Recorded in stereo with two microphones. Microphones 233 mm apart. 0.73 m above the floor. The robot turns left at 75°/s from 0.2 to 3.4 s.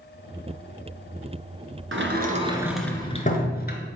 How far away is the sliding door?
About 1.6 m.